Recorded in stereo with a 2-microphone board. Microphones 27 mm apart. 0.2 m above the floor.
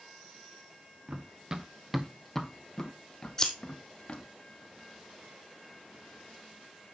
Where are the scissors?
20° left (ahead or behind), 1.7 m.